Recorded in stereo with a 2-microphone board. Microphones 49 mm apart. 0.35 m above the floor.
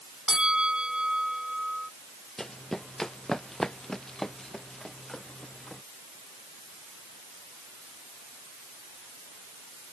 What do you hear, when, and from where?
0.3 s a bell: 15° right (ahead or behind)
2.4 s running footsteps: 10° left (ahead or behind)